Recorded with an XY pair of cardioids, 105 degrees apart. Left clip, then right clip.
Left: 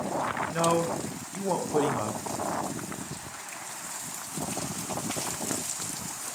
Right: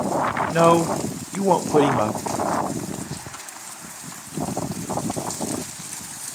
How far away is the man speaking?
About 0.6 m.